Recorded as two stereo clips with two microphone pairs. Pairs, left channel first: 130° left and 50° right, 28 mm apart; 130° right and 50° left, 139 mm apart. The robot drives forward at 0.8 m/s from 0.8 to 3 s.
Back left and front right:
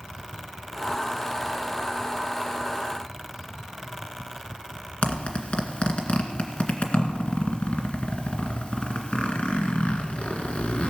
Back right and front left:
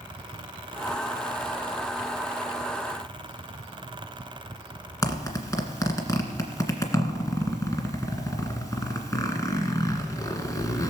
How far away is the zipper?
About 1.9 m.